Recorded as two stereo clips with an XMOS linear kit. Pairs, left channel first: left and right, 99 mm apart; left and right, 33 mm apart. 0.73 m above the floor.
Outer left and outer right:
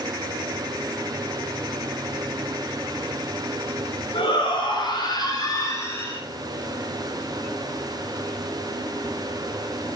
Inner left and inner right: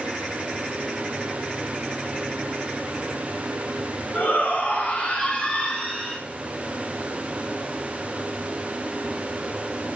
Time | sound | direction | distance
4.1 | a shout | 60° left (ahead or behind) | 4.5 m